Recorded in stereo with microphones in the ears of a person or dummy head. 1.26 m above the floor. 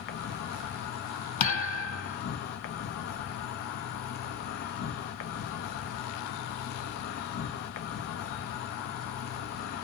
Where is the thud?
45° left (ahead or behind), 2.5 m.